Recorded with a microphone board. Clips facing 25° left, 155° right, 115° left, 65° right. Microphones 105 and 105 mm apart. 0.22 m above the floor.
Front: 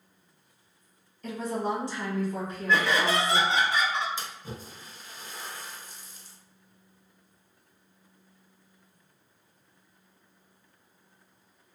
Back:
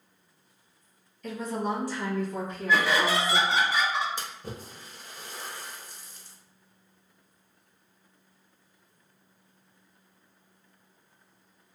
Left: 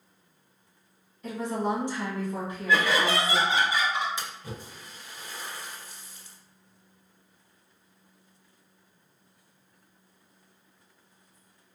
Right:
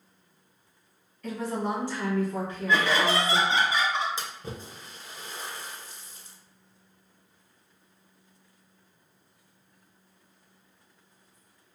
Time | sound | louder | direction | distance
1.2 | a woman speaking | even, left 1 dB | 50° left | 1.5 m
2.7 | laughter | even, even | 85° right | 1.0 m
4.2 | a splash | back 1 dB, right 1 dB | 130° right | 0.6 m